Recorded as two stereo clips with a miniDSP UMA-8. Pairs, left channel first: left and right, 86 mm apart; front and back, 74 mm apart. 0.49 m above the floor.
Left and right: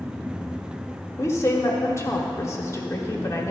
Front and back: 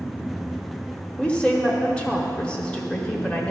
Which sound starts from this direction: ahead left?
A woman speaking, at 1.2 s.